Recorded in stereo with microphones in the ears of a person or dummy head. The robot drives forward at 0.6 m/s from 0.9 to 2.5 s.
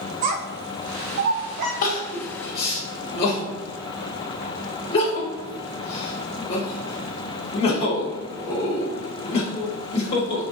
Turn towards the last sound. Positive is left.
turn(degrees=35)  # may be behind; listen again after turning